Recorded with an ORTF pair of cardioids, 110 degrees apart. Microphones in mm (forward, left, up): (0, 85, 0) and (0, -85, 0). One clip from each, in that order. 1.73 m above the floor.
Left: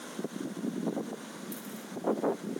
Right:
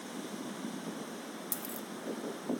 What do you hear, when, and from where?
1.5 s a dropped coin: 60° right, 3 m